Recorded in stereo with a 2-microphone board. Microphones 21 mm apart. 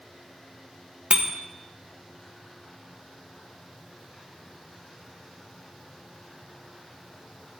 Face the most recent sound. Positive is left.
turn(degrees=-60)  # may be behind; listen again after turning